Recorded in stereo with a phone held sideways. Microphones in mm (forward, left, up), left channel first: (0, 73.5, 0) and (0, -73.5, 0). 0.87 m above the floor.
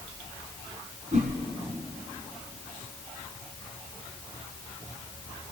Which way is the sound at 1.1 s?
65° right (ahead or behind).